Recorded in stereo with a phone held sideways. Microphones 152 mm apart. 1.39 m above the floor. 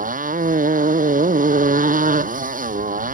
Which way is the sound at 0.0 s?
70° right (ahead or behind).